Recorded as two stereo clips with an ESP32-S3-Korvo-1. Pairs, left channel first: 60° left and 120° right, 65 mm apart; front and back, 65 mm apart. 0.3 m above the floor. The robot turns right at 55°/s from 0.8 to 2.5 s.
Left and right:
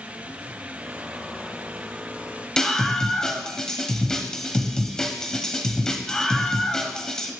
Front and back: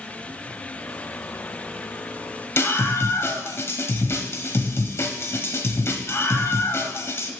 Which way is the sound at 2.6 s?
15° right.